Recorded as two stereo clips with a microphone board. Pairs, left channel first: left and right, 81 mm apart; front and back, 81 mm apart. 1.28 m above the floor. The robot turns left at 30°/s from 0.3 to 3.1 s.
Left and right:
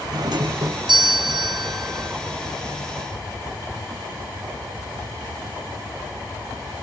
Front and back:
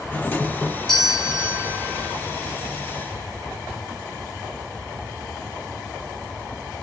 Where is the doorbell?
70° right, 1.3 m; by 2.1 s 125° right, 1.3 m.